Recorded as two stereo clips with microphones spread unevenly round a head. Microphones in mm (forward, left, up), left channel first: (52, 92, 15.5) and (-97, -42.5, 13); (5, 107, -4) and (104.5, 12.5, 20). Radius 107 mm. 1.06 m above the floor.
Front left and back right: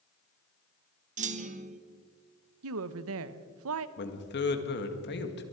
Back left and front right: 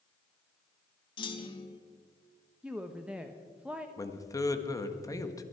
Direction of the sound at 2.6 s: 130° right.